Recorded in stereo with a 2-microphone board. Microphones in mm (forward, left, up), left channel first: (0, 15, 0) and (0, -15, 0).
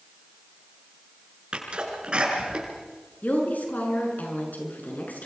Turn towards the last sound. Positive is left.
turn(degrees=75)  # may be behind; listen again after turning